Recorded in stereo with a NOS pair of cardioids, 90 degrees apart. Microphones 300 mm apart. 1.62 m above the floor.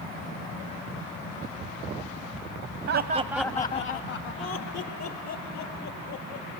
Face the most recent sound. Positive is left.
turn(degrees=70)